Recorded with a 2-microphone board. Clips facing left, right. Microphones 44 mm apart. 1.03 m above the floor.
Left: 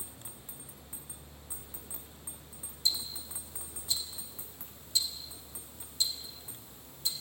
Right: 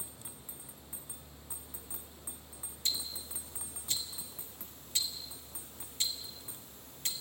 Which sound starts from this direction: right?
Ticking, at 2.9 s.